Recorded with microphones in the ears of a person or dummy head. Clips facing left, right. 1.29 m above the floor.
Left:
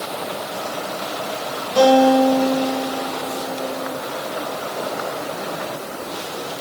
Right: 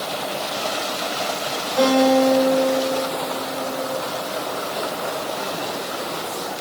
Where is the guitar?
65° left (ahead or behind), 4 m.